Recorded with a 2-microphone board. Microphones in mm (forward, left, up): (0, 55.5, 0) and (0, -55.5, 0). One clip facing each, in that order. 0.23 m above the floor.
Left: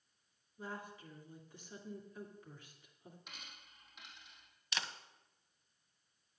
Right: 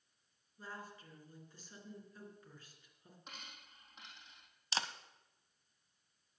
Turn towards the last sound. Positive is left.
turn(degrees=-35)  # may be behind; listen again after turning